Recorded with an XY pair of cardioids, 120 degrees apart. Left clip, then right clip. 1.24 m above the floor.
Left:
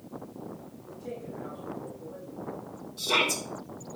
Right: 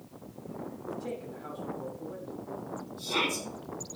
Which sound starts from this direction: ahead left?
A shout, at 3.0 s.